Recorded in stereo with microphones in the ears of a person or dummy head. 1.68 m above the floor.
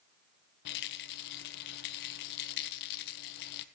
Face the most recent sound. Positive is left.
turn(degrees=60)  # may be behind; listen again after turning